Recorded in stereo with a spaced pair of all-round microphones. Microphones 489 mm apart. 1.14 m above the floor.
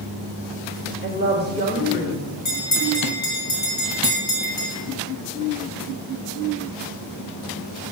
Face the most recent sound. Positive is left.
turn(degrees=75)  # may be behind; listen again after turning